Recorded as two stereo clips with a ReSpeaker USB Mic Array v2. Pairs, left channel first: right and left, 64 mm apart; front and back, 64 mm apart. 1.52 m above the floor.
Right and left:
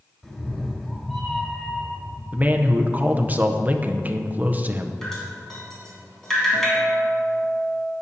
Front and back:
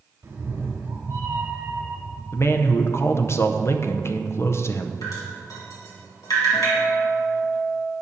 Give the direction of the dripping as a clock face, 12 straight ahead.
12 o'clock.